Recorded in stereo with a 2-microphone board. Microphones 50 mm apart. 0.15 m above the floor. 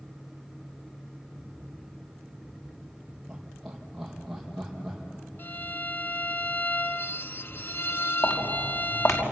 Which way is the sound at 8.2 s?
70° left (ahead or behind).